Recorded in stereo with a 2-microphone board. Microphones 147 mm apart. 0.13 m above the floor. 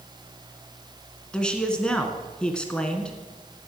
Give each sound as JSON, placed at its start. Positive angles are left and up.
{"t": 1.3, "sound": "a man speaking", "side_deg": 5, "distance_m": 1.6}